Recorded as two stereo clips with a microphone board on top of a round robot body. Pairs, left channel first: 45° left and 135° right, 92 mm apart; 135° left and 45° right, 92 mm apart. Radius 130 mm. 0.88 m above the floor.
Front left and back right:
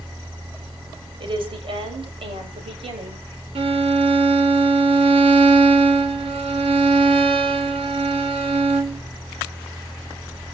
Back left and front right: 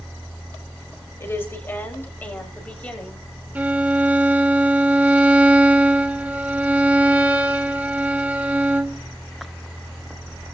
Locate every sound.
1.2 s a woman speaking: 160° right, 6 m; by 3.2 s 145° right, 7 m
3.5 s a violin: 120° right, 1.8 m